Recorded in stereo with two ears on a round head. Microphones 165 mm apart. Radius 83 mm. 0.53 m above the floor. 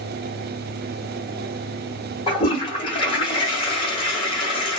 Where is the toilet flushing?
25° left (ahead or behind), 1.2 m.